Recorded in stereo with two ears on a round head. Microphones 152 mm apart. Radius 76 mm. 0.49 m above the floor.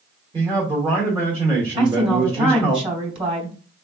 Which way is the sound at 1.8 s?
35° right (ahead or behind).